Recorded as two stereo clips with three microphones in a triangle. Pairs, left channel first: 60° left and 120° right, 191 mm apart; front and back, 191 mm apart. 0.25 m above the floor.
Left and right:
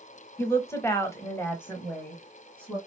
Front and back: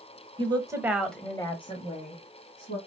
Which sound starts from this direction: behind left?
A woman speaking, at 0.4 s.